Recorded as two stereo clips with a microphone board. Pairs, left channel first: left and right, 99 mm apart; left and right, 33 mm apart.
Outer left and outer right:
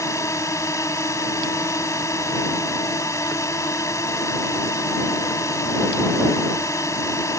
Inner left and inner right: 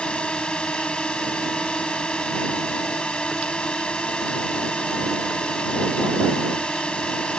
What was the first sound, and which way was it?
A drone, 30° left (ahead or behind).